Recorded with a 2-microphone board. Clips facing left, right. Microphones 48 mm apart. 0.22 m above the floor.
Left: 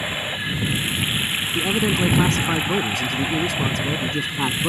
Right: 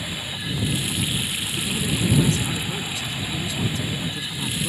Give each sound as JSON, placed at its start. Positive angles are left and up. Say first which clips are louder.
{"t": 0.0, "sound": "running water", "louder": "left 5 dB", "side_deg": 35}
{"t": 1.6, "sound": "a man speaking", "louder": "left 6 dB", "side_deg": 55}